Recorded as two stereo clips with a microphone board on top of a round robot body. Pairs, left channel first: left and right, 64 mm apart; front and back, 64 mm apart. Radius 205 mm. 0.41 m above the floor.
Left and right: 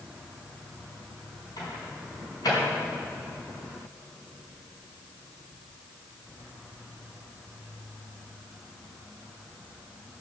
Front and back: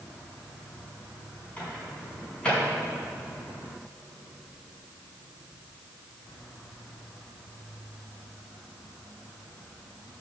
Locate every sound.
1.6 s a microwave: 75° left, 4.5 m